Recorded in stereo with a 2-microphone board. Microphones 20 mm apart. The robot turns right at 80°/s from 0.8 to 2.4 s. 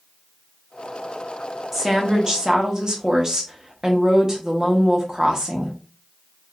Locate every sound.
1.7 s a woman speaking: 160° right, 1.0 m; by 5.8 s 105° right, 1.0 m